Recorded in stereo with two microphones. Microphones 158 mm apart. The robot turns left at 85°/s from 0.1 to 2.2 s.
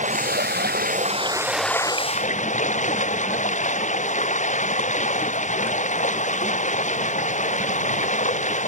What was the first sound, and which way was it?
Running water, 50° right.